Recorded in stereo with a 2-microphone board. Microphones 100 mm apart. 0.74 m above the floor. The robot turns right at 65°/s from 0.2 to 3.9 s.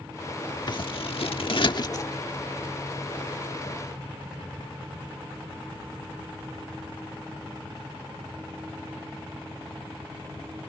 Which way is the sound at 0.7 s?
55° left.